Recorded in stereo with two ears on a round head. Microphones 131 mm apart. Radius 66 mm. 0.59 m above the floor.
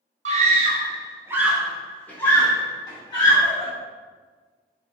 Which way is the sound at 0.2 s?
45° right (ahead or behind).